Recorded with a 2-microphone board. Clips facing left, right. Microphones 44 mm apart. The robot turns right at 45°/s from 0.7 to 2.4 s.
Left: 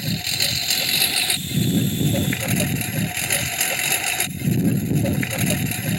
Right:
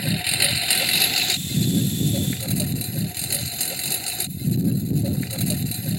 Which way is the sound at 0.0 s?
15° right.